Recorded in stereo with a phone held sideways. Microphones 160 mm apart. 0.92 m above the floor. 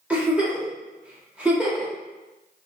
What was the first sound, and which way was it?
A giggle, 10° right (ahead or behind).